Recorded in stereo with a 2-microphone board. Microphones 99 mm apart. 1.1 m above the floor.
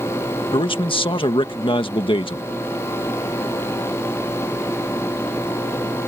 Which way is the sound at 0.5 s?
60° left (ahead or behind).